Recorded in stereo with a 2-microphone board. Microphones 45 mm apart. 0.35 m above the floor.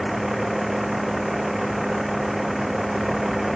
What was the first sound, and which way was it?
A vehicle, 5° right (ahead or behind).